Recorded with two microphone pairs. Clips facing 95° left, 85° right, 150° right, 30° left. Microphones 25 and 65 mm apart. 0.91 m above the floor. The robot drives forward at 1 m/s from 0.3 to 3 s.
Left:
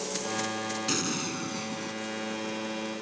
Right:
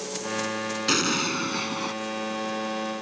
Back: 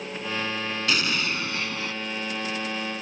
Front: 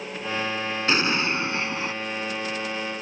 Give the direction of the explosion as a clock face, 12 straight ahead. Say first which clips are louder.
Right 9 dB, front 4 dB; 1 o'clock.